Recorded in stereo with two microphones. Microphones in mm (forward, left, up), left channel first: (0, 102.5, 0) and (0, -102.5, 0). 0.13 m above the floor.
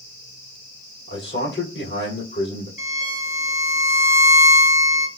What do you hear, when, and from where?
1.1 s a man speaking: 60° left (ahead or behind), 2.5 m
2.8 s a violin: 45° left (ahead or behind), 1.5 m